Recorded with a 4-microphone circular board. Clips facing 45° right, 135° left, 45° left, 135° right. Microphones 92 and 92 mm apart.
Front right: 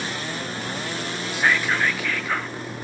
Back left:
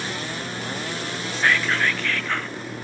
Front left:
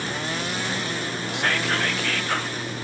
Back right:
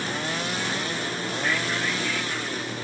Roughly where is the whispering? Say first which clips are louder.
Even, front left 4 dB; ahead left.